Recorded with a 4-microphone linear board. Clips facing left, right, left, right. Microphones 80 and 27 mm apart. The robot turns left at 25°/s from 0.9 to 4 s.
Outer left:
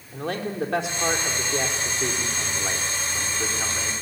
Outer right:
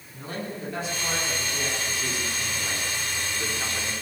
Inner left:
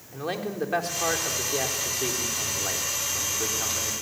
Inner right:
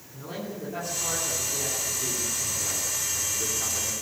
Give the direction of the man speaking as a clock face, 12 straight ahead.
9 o'clock.